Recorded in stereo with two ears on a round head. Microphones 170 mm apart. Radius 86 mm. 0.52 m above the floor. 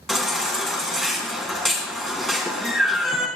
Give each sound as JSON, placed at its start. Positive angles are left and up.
{"t": 0.1, "sound": "a baby crying", "side_deg": 0, "distance_m": 3.5}